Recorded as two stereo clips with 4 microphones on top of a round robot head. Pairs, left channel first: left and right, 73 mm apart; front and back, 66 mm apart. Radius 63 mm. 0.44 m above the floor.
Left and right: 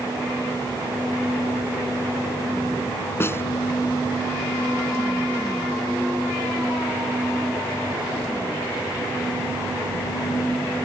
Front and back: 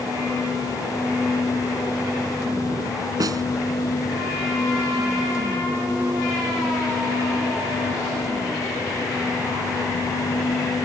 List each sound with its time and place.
3.2 s a snare drum: 150° left